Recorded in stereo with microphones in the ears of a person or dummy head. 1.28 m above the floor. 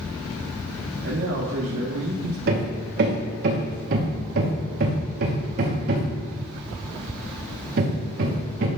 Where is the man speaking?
80° right, 1.1 m.